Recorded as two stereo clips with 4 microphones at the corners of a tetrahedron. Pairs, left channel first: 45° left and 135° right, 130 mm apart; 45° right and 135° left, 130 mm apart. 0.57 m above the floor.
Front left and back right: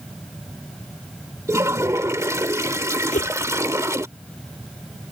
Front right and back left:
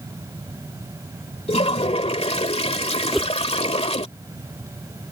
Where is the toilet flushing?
70° right.